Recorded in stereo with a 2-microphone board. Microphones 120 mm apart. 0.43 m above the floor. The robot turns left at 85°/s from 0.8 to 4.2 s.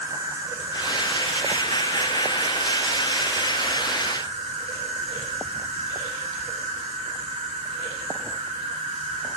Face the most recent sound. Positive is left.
turn(degrees=-85)